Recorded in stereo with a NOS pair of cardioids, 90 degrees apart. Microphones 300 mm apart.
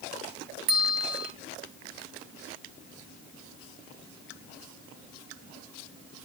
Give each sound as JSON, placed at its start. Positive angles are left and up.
{"t": 0.7, "sound": "a bell", "azimuth_deg": -65, "distance_m": 2.0}